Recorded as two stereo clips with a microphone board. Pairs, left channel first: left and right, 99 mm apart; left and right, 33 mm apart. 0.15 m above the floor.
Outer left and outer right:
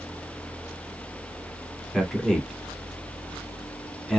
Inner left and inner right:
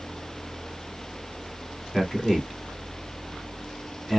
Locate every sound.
1.9 s a man speaking: centre (ahead or behind), 1.1 m